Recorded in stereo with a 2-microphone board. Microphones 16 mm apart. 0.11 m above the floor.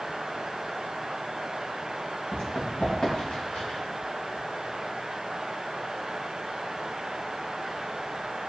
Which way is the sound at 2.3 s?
80° left.